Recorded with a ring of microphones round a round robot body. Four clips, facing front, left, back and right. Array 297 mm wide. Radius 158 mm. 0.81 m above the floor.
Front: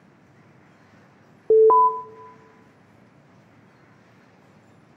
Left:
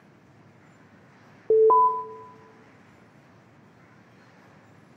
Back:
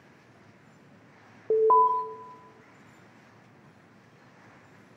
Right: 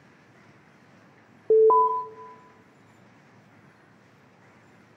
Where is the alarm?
5° left, 0.8 m.